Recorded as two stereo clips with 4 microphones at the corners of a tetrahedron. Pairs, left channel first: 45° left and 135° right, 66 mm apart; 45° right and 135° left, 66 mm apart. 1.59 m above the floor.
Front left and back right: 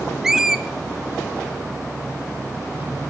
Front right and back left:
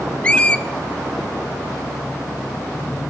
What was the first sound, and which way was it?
A squeak, 65° right.